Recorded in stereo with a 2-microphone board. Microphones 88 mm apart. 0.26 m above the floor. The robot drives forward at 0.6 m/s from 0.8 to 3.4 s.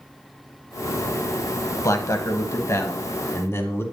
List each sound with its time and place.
1.8 s a man speaking: 40° left (ahead or behind), 1.3 m; by 3.8 s 30° left (ahead or behind), 1.6 m